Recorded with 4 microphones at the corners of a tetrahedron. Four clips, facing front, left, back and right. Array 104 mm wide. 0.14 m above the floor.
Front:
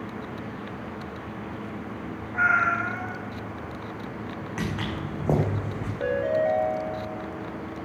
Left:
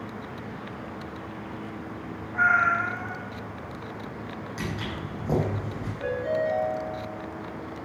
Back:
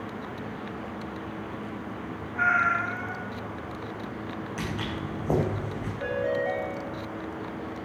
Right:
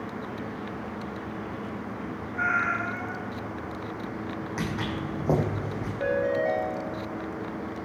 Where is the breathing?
I don't hear breathing.